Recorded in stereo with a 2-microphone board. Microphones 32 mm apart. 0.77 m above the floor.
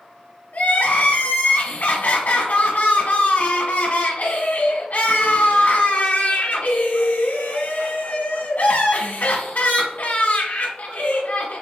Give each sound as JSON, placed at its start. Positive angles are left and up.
{"t": 0.5, "sound": "crying", "side_deg": 60, "distance_m": 1.4}